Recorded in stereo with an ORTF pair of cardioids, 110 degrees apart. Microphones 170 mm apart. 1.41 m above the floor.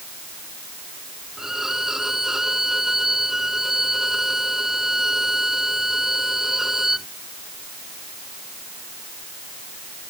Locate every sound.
1.4 s a violin: 5° right